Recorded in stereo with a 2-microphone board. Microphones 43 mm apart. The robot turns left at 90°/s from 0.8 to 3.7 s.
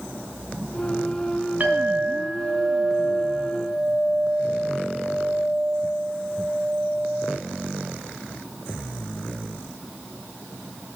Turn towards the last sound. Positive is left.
turn(degrees=135)